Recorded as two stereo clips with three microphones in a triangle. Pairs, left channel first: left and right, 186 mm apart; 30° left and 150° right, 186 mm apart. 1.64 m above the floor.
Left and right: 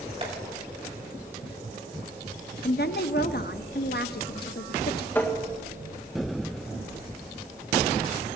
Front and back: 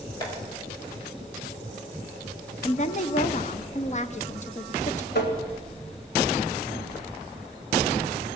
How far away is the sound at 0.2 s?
About 5 m.